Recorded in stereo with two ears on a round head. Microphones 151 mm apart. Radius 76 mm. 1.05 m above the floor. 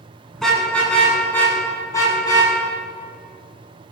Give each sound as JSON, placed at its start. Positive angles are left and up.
{"t": 0.3, "sound": "a car horn", "side_deg": 5, "distance_m": 5.5}